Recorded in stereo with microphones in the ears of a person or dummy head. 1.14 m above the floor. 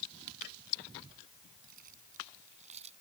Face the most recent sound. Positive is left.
turn(degrees=-35)  # may be behind; listen again after turning